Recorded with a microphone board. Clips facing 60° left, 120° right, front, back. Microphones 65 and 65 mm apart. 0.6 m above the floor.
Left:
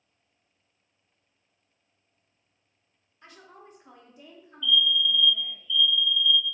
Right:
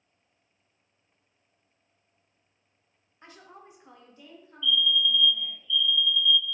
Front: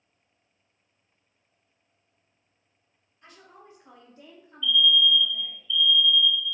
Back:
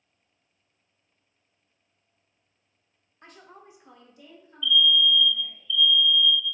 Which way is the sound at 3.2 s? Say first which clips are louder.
Even, back 2 dB; 175° right.